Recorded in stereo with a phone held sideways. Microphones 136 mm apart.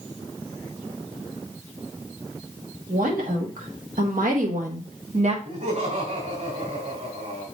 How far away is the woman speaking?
About 2 m.